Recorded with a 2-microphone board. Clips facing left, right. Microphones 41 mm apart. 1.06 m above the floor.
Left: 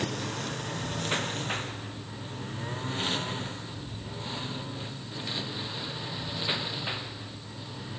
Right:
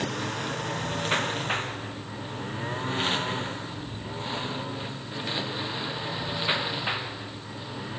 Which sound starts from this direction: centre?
A lawn mower, at 0.0 s.